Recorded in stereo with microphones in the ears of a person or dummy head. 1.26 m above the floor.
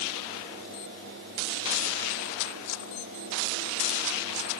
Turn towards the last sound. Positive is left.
No sound to turn to.